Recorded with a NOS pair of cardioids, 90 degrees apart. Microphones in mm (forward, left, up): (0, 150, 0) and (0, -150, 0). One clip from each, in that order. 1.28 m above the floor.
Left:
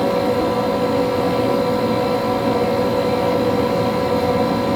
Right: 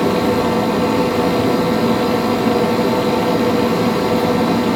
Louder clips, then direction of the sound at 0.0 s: Right 1 dB; 40° right.